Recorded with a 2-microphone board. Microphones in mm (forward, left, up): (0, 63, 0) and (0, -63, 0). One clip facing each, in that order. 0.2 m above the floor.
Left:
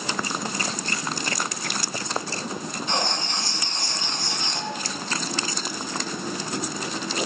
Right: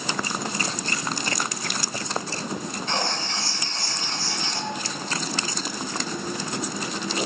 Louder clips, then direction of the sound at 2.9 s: Left 1 dB; 15° left (ahead or behind).